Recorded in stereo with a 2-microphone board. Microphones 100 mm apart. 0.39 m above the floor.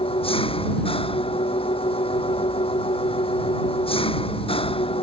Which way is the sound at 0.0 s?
65° left (ahead or behind).